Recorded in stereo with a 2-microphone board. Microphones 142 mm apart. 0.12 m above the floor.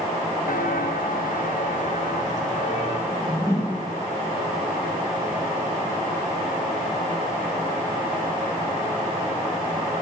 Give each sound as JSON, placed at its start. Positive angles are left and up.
{"t": 0.5, "sound": "footsteps", "side_deg": 75, "distance_m": 0.8}
{"t": 3.1, "sound": "a whoosh", "side_deg": 20, "distance_m": 3.5}